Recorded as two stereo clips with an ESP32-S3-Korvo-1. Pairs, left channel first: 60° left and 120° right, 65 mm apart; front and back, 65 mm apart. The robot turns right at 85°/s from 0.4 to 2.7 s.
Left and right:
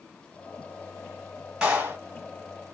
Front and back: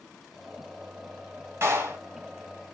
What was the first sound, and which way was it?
A clap, 170° left.